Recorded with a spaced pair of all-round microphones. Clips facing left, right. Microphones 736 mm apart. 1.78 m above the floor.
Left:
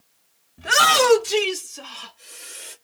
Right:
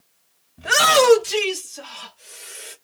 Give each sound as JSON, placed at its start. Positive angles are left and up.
{"t": 0.6, "sound": "a shout", "side_deg": -5, "distance_m": 0.6}